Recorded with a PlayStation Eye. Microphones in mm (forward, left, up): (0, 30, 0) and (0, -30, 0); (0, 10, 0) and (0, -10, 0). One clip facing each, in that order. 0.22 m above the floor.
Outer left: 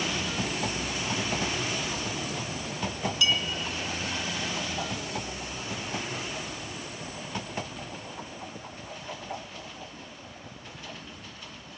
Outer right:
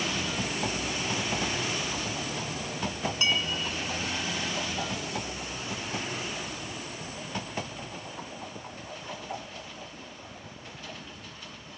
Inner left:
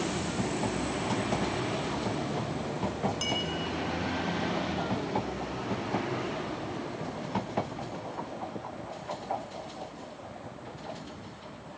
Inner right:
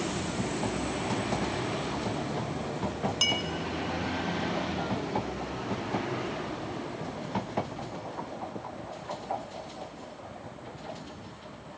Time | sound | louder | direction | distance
3.2 | a clink | outer left 1 dB, inner right 7 dB | 40° right (ahead or behind) | 1.6 m